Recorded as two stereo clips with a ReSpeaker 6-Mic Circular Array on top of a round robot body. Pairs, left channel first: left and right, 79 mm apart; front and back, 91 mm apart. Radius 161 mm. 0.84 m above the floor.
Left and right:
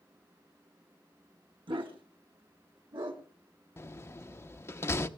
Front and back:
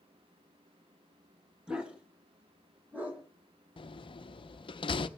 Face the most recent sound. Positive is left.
turn(degrees=35)